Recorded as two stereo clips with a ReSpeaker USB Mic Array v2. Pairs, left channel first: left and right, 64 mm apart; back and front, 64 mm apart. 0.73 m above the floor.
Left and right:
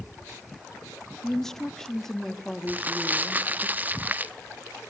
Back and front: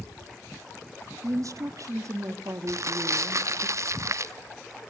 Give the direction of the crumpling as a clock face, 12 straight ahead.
1 o'clock.